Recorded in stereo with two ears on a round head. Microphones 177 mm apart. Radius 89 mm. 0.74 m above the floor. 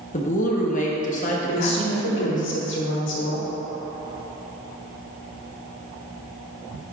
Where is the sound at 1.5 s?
65° left (ahead or behind), 1.4 m.